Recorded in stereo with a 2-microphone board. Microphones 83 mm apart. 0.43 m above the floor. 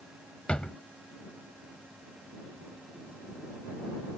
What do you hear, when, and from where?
0.5 s a drawer: 15° left (ahead or behind)